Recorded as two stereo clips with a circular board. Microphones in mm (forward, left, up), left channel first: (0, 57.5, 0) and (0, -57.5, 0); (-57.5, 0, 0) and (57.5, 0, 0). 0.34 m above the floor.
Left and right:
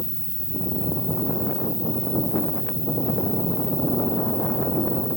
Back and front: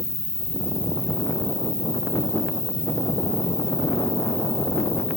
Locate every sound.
0.0 s an insect: 95° left, 4 m